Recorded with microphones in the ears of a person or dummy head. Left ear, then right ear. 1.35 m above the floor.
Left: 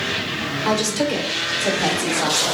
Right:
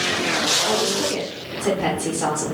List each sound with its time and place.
0.7 s a woman speaking: 20° left (ahead or behind), 0.7 m